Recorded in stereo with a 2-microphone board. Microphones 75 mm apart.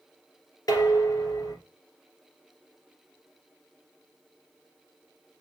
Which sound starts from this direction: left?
Dishes clattering, at 0.7 s.